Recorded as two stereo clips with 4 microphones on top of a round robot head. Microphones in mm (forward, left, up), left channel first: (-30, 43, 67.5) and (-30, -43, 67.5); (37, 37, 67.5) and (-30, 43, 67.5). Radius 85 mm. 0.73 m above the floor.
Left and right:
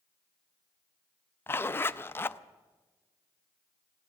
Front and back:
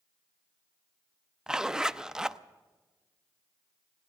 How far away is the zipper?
About 0.5 m.